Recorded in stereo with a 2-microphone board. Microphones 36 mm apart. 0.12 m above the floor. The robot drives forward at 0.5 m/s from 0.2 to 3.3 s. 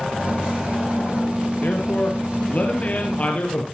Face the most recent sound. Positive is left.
turn(degrees=45)  # may be behind; listen again after turning